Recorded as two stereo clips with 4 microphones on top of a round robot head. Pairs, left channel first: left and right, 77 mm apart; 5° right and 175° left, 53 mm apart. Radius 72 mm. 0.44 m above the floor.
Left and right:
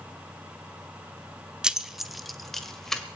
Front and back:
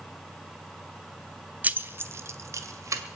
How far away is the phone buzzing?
No phone buzzing in this recording.